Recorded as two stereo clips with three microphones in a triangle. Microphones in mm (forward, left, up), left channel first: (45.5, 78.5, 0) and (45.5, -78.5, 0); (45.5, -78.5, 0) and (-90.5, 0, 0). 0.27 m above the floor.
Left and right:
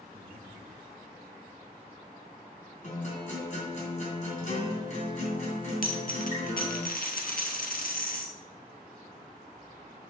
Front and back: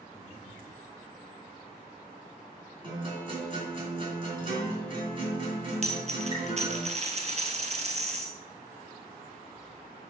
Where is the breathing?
75° right, 1.2 m.